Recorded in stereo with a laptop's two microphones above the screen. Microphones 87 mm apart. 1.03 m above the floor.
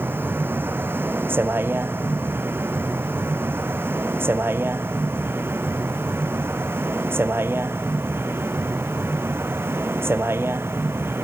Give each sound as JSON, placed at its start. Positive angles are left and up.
{"t": 0.0, "sound": "a vehicle", "side_deg": -25}